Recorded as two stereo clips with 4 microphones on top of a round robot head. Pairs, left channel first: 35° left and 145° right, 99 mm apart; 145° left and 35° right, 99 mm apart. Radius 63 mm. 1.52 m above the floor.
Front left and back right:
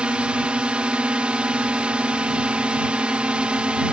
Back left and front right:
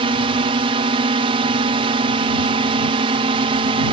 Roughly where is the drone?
Ahead right.